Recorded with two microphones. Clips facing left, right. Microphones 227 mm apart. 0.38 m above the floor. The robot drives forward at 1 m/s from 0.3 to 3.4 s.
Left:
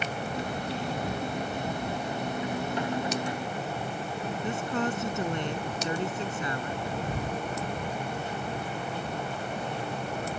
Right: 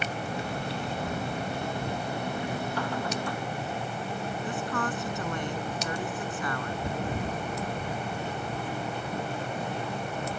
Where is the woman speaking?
20° left (ahead or behind).